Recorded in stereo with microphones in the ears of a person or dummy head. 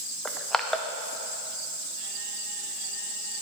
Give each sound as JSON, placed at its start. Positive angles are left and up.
{"t": 0.2, "sound": "crushing", "side_deg": 5, "distance_m": 0.7}